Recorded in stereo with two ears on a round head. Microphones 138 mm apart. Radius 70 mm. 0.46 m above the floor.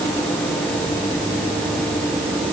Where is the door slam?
No door slam in this recording.